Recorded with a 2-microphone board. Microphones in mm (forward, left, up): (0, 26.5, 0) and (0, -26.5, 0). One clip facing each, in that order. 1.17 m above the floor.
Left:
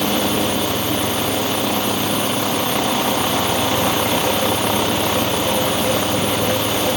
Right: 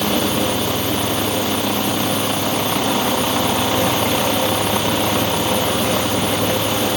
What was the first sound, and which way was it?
Only background noise.